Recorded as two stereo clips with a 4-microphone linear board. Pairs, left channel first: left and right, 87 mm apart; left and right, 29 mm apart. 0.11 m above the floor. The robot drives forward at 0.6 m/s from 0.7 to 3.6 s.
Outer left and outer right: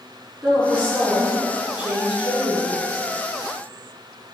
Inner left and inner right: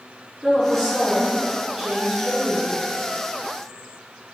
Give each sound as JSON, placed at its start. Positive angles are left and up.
{"t": 0.4, "sound": "a woman speaking", "side_deg": -15, "distance_m": 1.3}